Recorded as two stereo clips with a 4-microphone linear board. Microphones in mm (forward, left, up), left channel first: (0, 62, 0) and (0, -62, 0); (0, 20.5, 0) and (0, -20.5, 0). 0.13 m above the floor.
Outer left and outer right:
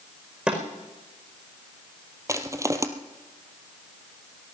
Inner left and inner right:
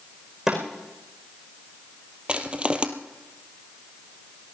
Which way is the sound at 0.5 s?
10° right (ahead or behind).